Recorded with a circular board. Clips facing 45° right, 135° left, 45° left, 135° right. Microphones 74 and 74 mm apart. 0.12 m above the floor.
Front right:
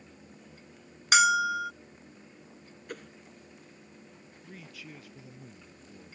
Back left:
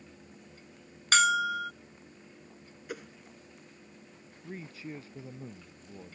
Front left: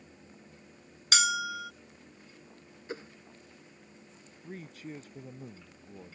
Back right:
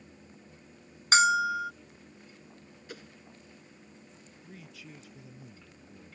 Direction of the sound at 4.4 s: 80° left.